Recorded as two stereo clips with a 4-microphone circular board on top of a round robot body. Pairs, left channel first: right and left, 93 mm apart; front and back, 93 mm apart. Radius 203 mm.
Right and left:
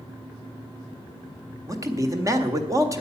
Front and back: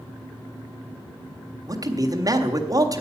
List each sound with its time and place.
1.7 s a man speaking: 140° left, 2.0 m